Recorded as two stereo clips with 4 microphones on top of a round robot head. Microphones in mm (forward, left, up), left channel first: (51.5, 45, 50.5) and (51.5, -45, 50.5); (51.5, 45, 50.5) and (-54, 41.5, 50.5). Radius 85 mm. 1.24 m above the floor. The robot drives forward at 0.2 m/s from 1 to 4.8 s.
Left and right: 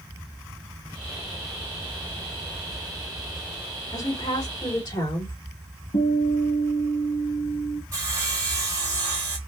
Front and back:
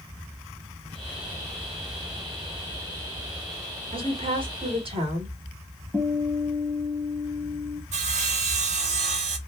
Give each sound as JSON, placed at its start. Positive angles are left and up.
{"t": 3.9, "sound": "a woman speaking", "azimuth_deg": 145, "distance_m": 2.0}
{"t": 5.9, "sound": "a guitar", "azimuth_deg": 110, "distance_m": 2.0}
{"t": 7.9, "sound": "sawing", "azimuth_deg": -155, "distance_m": 0.8}